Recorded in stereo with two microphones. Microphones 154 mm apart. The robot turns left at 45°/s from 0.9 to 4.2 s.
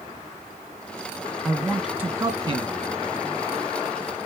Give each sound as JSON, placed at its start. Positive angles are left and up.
{"t": 1.4, "sound": "a man speaking", "azimuth_deg": 10, "distance_m": 1.9}